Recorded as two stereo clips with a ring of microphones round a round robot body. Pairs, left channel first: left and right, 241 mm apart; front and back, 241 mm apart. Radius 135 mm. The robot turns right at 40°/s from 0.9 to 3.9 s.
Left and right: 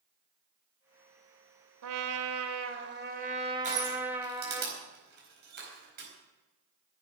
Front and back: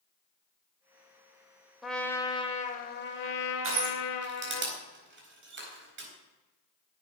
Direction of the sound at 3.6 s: 150° right.